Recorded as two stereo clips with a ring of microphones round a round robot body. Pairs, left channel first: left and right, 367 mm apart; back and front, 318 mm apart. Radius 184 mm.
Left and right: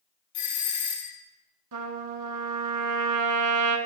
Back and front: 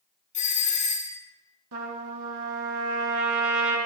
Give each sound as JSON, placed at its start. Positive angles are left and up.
{"t": 0.3, "sound": "a doorbell", "azimuth_deg": 115, "distance_m": 5.5}
{"t": 1.7, "sound": "a trumpet", "azimuth_deg": -45, "distance_m": 2.5}